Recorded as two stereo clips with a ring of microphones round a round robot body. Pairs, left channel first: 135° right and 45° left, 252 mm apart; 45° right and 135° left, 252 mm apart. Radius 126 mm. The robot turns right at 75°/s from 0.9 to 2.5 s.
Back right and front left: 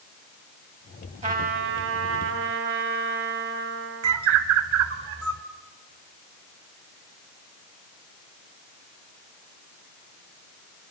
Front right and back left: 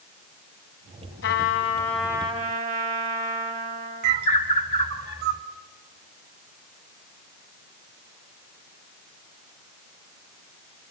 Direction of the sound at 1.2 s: 15° right.